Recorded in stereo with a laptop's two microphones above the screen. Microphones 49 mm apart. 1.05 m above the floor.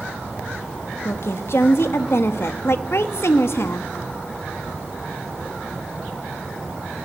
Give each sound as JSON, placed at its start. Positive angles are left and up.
{"t": 1.1, "sound": "a woman speaking", "side_deg": 60, "distance_m": 1.3}